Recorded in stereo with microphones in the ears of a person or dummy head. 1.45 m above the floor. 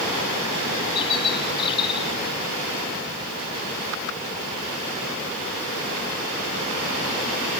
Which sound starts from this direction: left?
A bird, at 0.9 s.